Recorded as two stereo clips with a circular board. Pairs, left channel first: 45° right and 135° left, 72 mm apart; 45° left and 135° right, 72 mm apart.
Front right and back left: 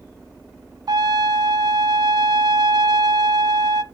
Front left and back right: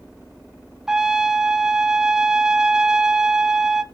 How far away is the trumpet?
About 0.6 m.